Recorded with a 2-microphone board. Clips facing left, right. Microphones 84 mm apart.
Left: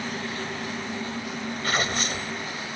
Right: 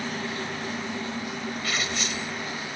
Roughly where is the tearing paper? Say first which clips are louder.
Left 7 dB; left.